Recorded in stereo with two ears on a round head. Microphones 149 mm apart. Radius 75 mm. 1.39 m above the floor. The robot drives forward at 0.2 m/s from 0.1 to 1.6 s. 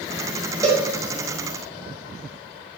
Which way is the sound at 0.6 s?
20° right (ahead or behind).